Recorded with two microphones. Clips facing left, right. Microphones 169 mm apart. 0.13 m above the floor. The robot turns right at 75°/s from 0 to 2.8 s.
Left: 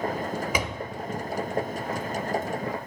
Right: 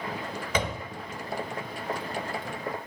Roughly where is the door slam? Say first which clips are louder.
Even; centre.